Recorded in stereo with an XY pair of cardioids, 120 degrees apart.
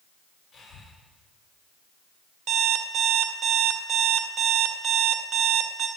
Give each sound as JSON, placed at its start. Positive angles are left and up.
{"t": 0.5, "sound": "breathing", "azimuth_deg": 35, "distance_m": 4.0}
{"t": 2.5, "sound": "an alarm clock", "azimuth_deg": -65, "distance_m": 1.6}